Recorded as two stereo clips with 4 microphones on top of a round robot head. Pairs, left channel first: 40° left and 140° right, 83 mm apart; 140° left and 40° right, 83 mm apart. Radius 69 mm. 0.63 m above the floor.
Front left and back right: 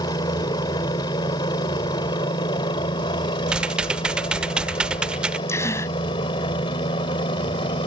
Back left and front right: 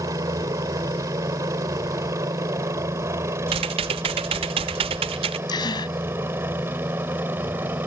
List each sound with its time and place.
0.0 s a helicopter: 5° left; by 7.9 s 25° left
3.5 s typing on a keyboard: 60° right
5.5 s a gasp: 100° left